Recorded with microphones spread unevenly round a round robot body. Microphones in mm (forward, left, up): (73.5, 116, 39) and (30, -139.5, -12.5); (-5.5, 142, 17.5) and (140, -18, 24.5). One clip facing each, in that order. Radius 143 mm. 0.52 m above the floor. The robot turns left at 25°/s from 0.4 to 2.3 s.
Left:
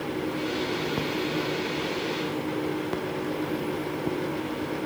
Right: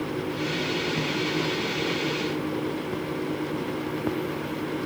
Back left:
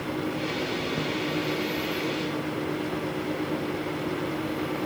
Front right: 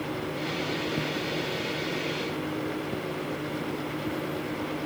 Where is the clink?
No clink in this recording.